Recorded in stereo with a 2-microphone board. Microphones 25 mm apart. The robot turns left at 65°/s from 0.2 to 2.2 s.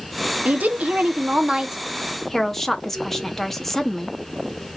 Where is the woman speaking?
75° right, 0.8 m; by 4.1 s 170° left, 0.8 m.